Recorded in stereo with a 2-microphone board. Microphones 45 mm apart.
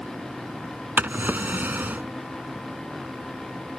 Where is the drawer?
45° right (ahead or behind).